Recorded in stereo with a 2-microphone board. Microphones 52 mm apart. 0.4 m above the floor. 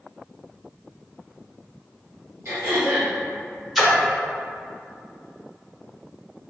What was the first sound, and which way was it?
Throat clearing, 65° right (ahead or behind).